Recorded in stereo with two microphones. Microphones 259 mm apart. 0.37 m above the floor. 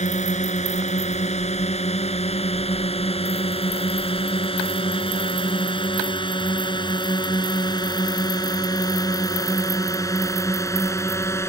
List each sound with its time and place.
0.0 s a drone: 25° left (ahead or behind); by 11.5 s 10° left (ahead or behind)